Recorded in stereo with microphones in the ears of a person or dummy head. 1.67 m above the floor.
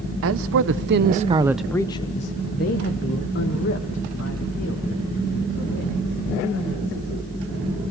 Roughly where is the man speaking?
Right.